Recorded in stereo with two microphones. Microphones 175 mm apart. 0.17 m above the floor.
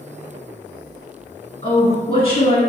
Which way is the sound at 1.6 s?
30° left (ahead or behind).